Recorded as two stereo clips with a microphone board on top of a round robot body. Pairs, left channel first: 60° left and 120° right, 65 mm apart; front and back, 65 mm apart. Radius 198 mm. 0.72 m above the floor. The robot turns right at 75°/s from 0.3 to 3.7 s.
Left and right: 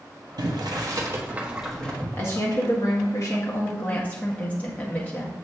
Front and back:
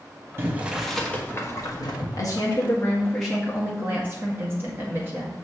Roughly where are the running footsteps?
I don't hear running footsteps.